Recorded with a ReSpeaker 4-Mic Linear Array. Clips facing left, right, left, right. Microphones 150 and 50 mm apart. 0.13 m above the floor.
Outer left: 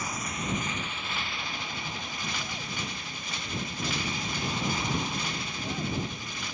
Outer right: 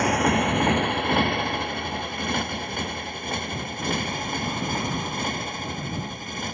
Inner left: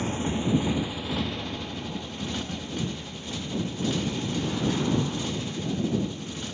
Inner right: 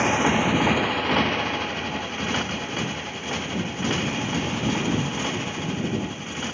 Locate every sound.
0.0 s a motorcycle: 70° right (ahead or behind); by 6.5 s 50° right (ahead or behind)